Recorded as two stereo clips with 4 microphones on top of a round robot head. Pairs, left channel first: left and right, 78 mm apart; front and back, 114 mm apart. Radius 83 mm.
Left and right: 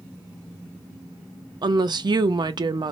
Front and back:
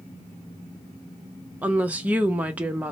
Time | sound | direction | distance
1.6 | a woman speaking | 105° right | 0.5 m